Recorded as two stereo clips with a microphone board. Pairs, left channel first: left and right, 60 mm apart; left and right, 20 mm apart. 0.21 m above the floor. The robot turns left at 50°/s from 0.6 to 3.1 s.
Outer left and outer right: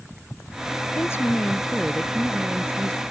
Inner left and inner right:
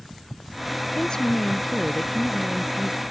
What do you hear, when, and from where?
0.9 s a woman speaking: 55° left; by 3.0 s 50° right